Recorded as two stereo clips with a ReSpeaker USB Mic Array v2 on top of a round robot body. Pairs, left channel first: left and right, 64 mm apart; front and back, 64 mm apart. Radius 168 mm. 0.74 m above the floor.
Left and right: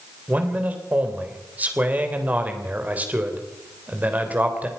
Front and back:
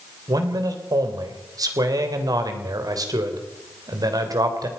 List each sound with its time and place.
0.3 s a man speaking: 155° right, 3.5 m